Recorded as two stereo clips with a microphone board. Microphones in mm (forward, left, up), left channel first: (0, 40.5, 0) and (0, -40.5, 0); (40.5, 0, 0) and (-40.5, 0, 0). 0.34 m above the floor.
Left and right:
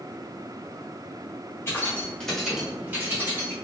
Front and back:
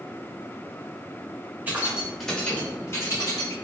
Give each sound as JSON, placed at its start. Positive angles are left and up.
{"t": 1.7, "sound": "keys jangling", "azimuth_deg": 130, "distance_m": 1.0}